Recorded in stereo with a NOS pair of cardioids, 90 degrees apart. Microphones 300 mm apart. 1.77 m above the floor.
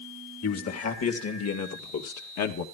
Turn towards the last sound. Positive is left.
turn(degrees=70)